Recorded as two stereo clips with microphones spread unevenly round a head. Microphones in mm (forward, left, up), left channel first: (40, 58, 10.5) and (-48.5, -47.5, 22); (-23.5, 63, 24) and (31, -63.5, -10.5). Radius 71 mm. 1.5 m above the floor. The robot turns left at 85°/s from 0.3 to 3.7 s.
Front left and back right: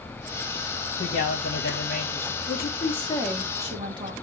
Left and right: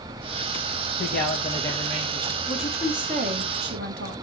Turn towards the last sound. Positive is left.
turn(degrees=-70)